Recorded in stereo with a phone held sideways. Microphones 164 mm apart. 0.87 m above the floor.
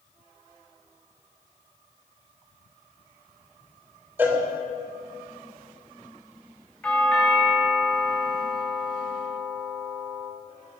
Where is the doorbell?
10° left (ahead or behind), 2.5 m.